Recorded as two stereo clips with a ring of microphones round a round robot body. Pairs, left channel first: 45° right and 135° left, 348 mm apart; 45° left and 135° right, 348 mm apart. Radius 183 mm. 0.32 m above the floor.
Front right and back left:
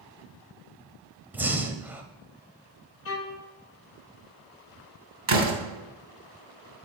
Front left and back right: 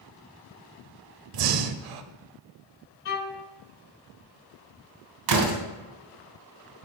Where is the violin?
Straight ahead, 1.3 m.